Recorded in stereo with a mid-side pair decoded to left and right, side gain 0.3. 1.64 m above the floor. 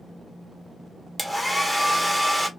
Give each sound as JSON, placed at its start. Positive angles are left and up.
{"t": 1.2, "sound": "a hair dryer", "azimuth_deg": 10, "distance_m": 1.1}